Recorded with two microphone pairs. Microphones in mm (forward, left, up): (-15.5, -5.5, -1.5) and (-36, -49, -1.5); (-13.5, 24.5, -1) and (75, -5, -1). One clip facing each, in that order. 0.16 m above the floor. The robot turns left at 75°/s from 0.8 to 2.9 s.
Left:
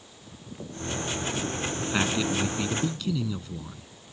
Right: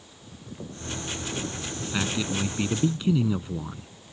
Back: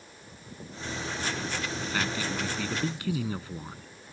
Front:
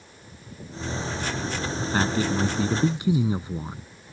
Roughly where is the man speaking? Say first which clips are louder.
Left 2 dB, front 9 dB; ahead.